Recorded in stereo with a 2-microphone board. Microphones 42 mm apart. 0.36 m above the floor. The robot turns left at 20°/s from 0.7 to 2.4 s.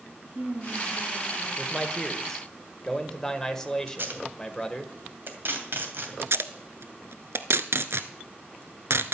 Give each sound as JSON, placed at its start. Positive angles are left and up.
{"t": 0.2, "sound": "a woman speaking", "side_deg": -55, "distance_m": 3.0}
{"t": 1.6, "sound": "a man speaking", "side_deg": 5, "distance_m": 1.6}
{"t": 3.9, "sound": "tape being pulled", "side_deg": -55, "distance_m": 2.5}
{"t": 6.2, "sound": "tape being pulled", "side_deg": -80, "distance_m": 0.9}